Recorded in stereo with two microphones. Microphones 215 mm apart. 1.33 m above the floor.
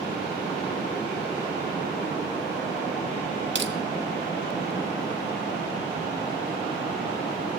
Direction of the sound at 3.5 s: 65° right (ahead or behind).